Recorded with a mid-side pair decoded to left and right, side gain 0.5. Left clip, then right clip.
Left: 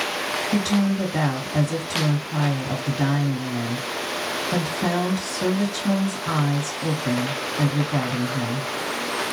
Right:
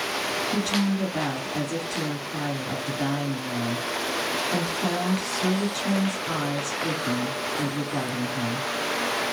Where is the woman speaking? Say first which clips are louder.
Left 2 dB; 65° left, 1.0 m.